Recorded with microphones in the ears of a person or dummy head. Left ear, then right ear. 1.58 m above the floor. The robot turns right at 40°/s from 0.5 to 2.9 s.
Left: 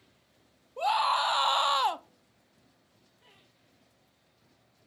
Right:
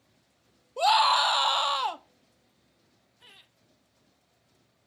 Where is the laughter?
65° right (ahead or behind), 1.3 m.